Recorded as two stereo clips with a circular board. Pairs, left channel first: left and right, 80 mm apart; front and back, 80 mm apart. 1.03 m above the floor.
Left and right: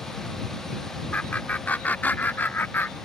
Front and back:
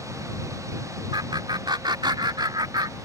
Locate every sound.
1.1 s laughter: 160° left; by 3.0 s 150° left